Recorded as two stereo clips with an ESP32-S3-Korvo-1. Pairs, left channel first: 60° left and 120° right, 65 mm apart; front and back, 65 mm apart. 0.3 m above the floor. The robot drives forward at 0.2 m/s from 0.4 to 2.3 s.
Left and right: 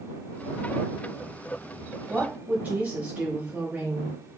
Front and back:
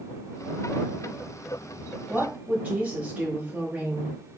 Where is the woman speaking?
145° right, 1.0 m.